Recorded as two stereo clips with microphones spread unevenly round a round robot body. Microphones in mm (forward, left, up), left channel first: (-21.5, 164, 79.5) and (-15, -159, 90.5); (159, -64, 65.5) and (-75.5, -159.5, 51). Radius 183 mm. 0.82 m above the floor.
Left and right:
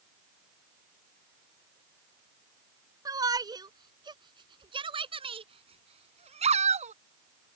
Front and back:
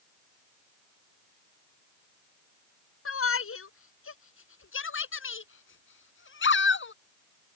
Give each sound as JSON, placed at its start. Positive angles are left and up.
{"t": 3.0, "sound": "a shout", "azimuth_deg": -10}